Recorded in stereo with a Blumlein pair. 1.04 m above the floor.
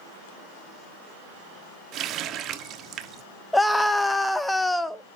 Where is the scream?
5° left, 1.1 m.